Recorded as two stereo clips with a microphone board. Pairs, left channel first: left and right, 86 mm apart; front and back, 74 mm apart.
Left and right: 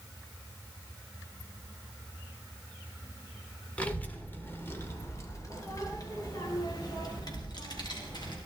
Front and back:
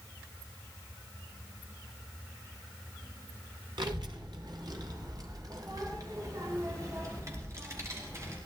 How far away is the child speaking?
About 2 m.